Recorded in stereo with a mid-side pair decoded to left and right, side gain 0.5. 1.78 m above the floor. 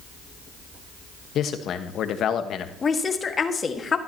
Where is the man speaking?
60° left, 1.3 m.